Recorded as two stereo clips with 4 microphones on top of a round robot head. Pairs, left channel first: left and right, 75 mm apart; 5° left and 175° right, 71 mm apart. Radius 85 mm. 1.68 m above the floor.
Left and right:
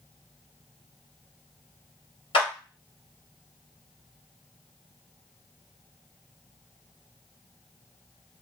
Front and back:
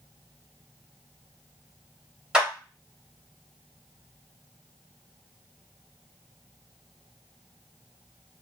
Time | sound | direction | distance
2.3 | a clap | 105° left | 1.3 m